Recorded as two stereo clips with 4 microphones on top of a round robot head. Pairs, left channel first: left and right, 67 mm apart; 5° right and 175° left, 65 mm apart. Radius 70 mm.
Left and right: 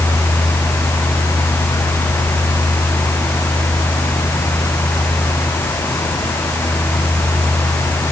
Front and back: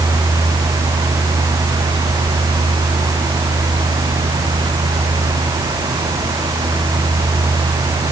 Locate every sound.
Only background noise.